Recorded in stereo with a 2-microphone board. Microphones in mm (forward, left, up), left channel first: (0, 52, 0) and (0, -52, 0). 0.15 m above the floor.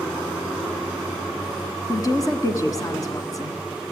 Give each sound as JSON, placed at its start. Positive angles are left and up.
{"t": 1.9, "sound": "a woman speaking", "side_deg": 35, "distance_m": 1.6}